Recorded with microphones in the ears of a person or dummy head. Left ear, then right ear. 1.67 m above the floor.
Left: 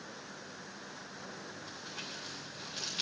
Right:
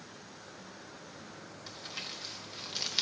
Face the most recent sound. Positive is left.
turn(degrees=-55)  # may be behind; listen again after turning